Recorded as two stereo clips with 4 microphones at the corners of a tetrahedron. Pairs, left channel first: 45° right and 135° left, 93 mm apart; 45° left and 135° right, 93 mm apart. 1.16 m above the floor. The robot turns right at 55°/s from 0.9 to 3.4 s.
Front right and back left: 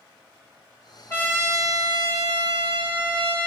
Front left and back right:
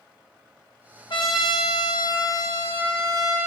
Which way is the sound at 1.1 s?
20° left.